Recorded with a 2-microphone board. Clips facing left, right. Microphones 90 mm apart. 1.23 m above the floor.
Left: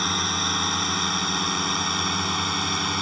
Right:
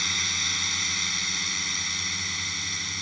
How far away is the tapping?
No tapping in this recording.